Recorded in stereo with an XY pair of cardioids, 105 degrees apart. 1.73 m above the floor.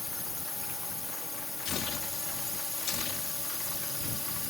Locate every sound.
0.0 s a drone: 20° left
1.6 s tearing paper: 60° left